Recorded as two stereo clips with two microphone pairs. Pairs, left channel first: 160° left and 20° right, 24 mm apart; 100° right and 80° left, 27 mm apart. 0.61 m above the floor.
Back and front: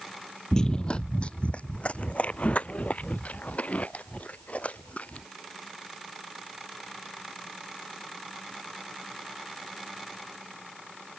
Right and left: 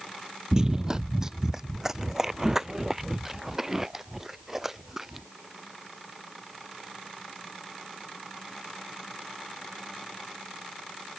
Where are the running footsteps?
115° left; by 5.3 s 155° left.